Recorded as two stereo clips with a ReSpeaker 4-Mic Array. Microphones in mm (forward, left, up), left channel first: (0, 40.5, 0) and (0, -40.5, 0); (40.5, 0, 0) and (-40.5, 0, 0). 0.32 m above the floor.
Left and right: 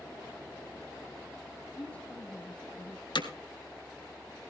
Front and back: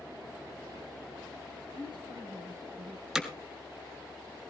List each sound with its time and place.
1.7 s a woman speaking: 165° left, 6 m
3.1 s hammering: 100° left, 1.5 m